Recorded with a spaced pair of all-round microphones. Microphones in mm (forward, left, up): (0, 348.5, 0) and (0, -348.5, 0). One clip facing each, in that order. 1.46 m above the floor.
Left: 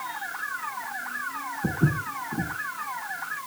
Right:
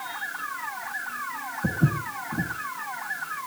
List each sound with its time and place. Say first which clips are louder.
1.6 s footsteps: even; 10° right (ahead or behind), 4 m